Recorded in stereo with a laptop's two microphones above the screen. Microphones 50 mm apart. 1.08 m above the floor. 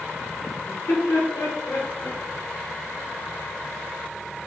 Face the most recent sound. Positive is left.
turn(degrees=70)  # may be behind; listen again after turning